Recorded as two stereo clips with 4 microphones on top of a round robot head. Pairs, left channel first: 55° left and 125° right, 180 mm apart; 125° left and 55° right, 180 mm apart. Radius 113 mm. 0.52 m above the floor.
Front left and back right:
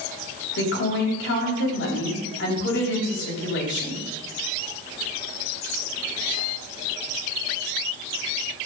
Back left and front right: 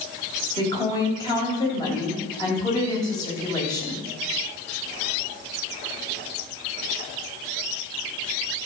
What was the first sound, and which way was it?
A woman speaking, 55° left.